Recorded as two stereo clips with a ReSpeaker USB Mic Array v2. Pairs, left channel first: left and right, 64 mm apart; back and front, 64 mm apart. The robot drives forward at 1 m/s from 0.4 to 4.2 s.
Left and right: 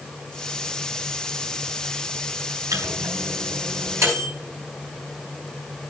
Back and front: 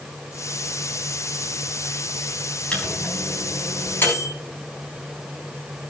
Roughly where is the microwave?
Right.